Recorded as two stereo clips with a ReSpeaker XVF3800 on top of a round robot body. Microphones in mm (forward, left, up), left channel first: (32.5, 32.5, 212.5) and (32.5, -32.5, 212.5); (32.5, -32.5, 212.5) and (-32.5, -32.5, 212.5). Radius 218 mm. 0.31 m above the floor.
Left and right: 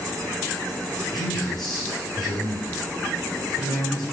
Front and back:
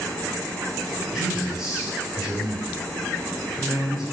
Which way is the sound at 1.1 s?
100° left.